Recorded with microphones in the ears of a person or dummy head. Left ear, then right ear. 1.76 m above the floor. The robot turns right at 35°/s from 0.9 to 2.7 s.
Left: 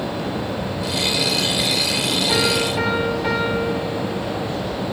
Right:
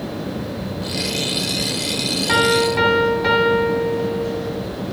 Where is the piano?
30° right (ahead or behind), 3 m; by 4.5 s 15° right (ahead or behind), 3 m.